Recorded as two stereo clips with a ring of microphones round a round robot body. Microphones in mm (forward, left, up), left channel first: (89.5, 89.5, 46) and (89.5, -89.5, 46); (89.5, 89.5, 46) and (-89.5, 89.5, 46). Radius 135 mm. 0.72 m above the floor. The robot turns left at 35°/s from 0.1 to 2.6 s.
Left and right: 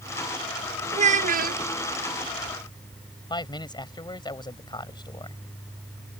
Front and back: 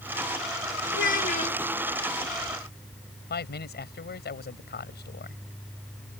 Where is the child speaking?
40° right; by 1.6 s 60° right.